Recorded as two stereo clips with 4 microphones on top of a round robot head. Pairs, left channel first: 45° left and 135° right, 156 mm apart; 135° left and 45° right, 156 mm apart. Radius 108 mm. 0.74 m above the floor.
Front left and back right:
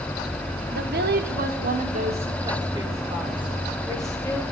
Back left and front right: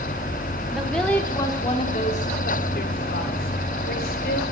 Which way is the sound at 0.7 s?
130° right.